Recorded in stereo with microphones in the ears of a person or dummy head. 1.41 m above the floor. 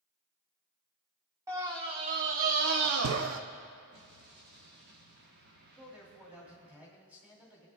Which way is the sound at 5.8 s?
15° right (ahead or behind).